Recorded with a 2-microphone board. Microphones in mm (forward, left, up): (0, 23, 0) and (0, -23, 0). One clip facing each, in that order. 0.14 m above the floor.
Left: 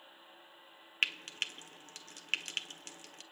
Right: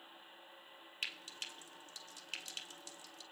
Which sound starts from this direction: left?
Frying, at 1.0 s.